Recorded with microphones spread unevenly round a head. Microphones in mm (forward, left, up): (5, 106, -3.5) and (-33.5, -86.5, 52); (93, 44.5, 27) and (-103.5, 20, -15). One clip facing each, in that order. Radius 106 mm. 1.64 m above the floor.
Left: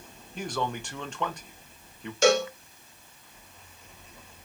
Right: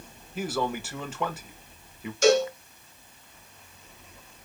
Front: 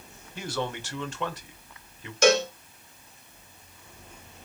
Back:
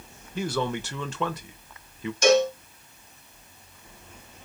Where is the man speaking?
Straight behind, 1.2 m.